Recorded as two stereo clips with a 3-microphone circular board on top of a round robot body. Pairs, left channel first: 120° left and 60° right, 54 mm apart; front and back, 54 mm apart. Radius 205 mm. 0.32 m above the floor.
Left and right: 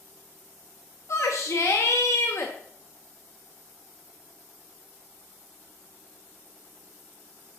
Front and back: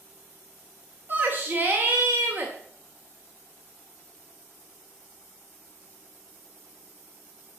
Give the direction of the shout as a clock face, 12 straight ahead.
8 o'clock.